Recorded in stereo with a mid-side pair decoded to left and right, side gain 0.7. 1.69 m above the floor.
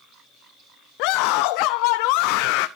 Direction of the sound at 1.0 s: 65° left.